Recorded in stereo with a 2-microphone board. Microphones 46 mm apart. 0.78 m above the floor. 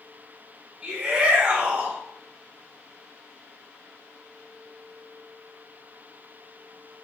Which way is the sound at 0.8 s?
30° right (ahead or behind).